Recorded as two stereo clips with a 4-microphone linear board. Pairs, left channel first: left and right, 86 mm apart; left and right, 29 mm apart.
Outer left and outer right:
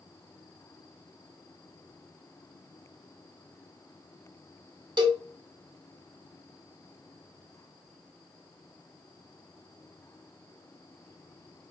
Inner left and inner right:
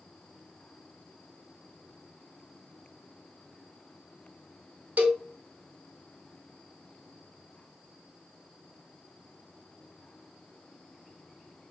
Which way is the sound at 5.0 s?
55° right (ahead or behind).